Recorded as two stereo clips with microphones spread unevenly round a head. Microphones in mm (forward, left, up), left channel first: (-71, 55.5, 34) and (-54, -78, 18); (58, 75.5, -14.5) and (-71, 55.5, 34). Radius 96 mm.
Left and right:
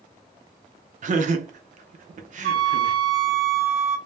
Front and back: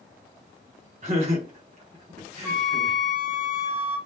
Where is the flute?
120° right, 0.9 m.